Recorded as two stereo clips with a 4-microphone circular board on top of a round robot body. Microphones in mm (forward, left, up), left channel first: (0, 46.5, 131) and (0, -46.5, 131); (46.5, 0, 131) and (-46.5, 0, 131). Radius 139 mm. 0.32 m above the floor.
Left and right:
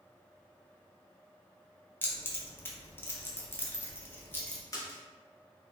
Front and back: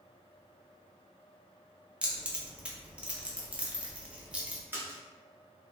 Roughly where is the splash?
Behind left.